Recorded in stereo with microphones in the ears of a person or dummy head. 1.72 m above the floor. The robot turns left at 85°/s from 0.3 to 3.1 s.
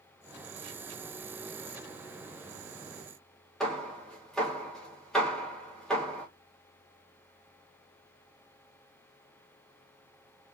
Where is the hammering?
5° left (ahead or behind), 1.6 m.